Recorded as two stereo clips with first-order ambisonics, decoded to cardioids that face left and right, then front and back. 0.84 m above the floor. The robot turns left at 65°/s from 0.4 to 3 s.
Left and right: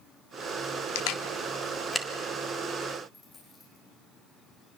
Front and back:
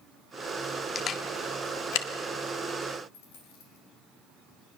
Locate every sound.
0.9 s a camera shutter: 70° left, 1.4 m; by 2.1 s straight ahead, 1.4 m
3.1 s a dropped coin: 10° left, 6.5 m